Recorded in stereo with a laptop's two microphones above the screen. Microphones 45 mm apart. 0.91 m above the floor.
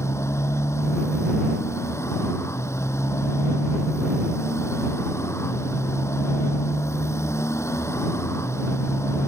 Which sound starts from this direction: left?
A motorcycle, at 0.0 s.